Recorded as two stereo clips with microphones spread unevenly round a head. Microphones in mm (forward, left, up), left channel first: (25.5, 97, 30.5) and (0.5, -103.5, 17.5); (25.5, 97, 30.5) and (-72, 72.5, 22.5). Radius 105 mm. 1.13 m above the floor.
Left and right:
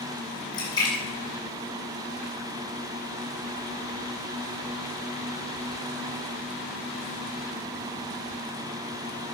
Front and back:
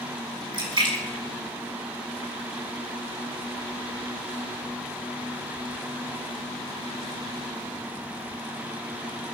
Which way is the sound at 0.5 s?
155° left.